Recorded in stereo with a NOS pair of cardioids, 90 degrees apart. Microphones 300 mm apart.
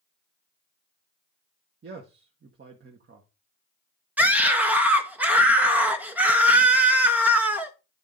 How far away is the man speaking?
About 1.7 m.